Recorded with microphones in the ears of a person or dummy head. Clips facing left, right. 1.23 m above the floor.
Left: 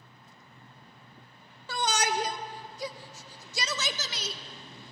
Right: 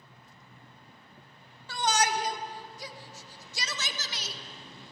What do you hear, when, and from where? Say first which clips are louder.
1.7 s a shout: right 1 dB; 75° left (ahead or behind), 1.3 m